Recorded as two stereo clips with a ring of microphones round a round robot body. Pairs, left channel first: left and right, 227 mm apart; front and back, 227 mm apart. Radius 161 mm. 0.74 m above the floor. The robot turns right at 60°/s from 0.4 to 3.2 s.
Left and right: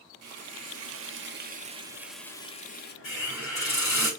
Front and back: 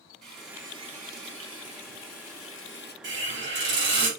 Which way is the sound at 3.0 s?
140° left.